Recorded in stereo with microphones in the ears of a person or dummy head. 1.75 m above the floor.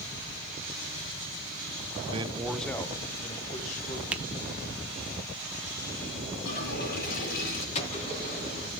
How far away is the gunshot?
About 3.5 m.